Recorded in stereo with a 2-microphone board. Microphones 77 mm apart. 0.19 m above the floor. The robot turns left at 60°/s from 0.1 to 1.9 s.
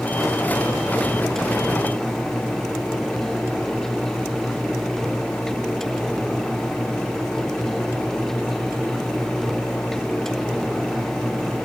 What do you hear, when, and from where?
Only background noise.